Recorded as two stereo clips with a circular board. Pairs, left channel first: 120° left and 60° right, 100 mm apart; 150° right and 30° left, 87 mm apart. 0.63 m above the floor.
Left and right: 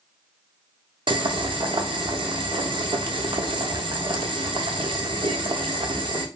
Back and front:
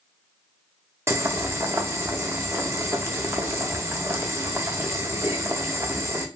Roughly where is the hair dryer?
I don't hear a hair dryer.